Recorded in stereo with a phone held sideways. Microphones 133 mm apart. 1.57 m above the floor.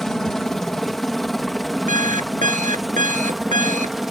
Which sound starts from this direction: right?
An alarm clock, at 1.9 s.